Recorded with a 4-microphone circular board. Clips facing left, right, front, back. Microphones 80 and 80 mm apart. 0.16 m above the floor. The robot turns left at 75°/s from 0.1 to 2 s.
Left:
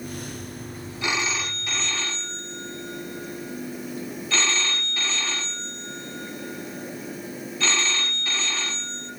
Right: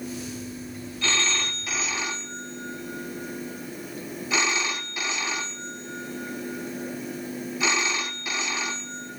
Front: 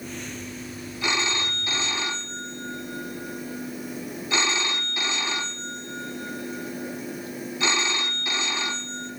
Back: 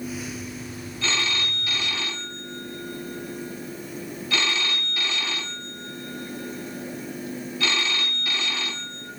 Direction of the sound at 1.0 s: 45° left.